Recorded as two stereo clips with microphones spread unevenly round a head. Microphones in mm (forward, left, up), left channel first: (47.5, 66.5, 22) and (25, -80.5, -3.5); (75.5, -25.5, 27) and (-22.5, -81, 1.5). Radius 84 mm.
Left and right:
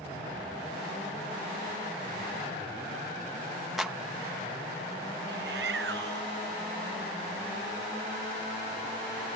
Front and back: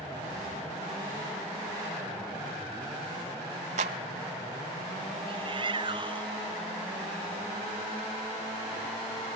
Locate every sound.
3.8 s a clap: 175° left
5.3 s a shout: 110° right